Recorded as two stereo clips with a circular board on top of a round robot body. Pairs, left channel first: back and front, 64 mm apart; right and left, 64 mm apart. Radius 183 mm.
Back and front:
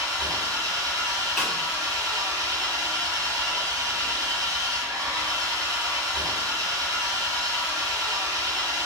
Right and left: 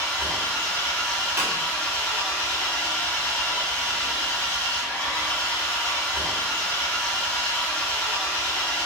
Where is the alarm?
No alarm in this recording.